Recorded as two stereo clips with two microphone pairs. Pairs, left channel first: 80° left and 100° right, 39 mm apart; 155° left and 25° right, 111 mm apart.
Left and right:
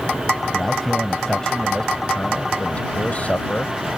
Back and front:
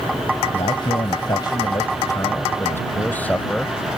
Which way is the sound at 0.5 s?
165° left.